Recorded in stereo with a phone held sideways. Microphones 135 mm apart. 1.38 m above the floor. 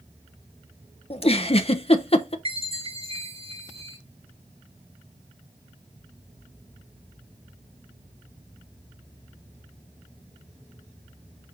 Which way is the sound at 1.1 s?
45° left (ahead or behind).